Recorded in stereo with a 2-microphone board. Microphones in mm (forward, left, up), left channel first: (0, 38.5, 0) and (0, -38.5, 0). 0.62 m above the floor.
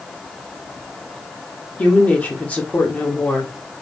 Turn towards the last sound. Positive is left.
turn(degrees=20)  # may be behind; listen again after turning